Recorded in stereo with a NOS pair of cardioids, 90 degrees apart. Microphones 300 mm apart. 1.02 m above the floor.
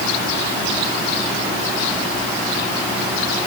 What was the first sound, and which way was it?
Only background noise.